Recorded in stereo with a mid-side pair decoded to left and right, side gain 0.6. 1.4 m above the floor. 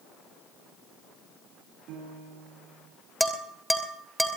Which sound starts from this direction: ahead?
Dishes clattering, at 3.2 s.